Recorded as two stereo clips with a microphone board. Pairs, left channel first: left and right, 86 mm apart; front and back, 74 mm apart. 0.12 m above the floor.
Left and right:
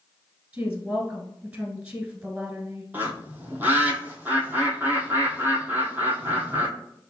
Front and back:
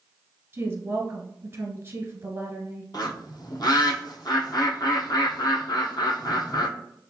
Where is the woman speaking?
155° right, 1.4 m.